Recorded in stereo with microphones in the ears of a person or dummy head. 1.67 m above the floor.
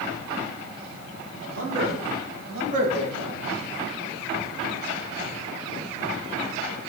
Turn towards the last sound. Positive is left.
turn(degrees=-20)  # may be behind; listen again after turning